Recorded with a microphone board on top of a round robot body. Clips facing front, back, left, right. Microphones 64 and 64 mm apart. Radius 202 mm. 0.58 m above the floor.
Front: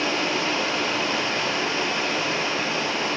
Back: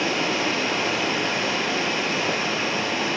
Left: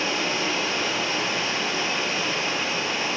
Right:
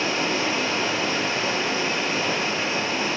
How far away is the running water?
About 7.5 m.